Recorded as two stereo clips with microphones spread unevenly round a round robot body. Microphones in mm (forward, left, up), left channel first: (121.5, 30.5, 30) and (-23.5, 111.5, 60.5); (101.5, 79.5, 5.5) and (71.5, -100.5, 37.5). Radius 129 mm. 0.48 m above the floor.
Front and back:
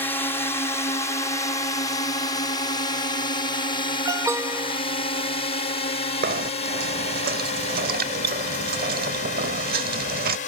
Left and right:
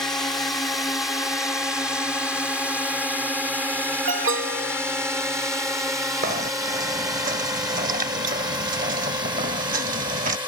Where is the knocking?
160° right.